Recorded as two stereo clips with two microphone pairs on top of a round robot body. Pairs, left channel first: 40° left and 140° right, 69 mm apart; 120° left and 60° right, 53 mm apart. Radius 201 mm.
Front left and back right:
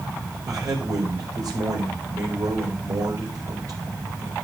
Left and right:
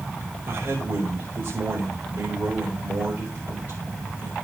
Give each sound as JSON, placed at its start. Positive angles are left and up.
{"t": 0.5, "sound": "a man speaking", "azimuth_deg": -110, "distance_m": 4.0}